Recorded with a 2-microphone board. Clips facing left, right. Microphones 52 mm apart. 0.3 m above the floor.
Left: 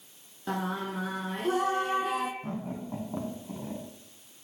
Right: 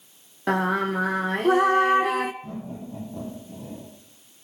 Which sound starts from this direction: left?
Laughter, at 2.4 s.